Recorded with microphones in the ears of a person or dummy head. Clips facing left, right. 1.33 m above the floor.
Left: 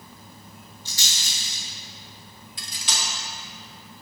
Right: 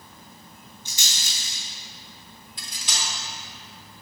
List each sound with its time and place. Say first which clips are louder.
0.8 s a rattle: even; 15° right (ahead or behind), 1.3 m
2.6 s cutlery clinking: left 1 dB; 60° left (ahead or behind), 0.9 m